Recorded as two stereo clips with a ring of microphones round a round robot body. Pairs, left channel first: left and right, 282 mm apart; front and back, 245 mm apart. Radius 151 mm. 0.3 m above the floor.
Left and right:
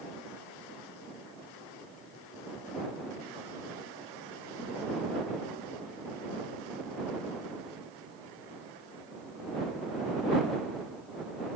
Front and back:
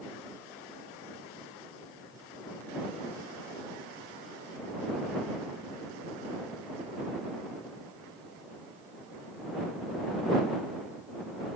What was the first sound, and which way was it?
Only background noise.